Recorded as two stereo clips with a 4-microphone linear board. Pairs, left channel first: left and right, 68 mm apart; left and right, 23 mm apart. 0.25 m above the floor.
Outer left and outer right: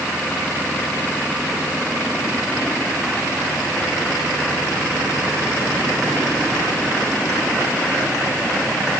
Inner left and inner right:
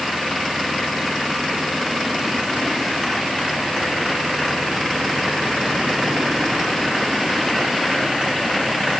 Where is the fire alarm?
I don't hear a fire alarm.